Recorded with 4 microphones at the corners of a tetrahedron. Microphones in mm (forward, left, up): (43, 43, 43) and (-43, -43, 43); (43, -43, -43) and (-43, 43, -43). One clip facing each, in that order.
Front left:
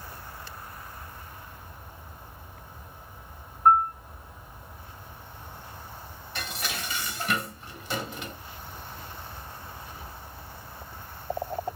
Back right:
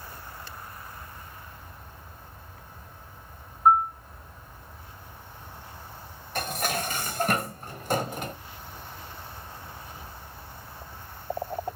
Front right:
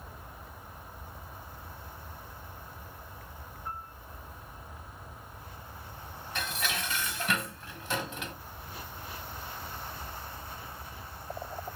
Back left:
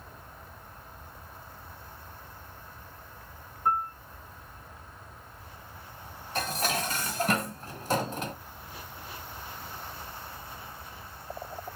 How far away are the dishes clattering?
About 1.6 m.